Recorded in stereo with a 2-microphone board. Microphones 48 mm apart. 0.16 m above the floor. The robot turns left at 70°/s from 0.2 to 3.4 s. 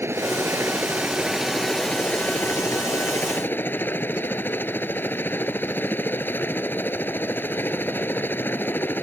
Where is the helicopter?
85° right; by 9.0 s 55° left.